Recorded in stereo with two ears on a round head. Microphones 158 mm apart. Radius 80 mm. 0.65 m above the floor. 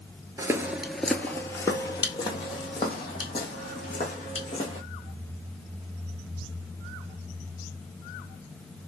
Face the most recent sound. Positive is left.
turn(degrees=35)  # may be behind; listen again after turning